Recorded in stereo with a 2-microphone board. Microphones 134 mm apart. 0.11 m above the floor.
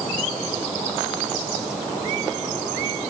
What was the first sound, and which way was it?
Only background noise.